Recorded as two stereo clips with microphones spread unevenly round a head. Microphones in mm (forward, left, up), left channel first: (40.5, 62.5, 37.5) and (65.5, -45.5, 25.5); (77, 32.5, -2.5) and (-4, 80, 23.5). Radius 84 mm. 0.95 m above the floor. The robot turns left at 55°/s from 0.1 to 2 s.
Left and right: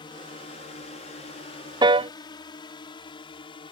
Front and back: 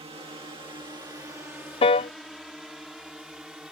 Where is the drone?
145° left; by 3.7 s 65° left.